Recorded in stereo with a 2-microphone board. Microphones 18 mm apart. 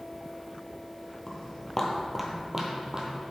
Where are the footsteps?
25° left (ahead or behind), 1.6 m; by 3.2 s 40° right (ahead or behind), 1.9 m.